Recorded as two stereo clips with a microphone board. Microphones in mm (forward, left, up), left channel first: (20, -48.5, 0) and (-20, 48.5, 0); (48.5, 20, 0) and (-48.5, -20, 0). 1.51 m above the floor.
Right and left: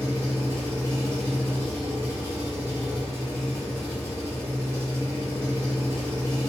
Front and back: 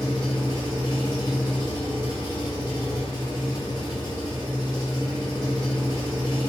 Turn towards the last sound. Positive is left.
turn(degrees=55)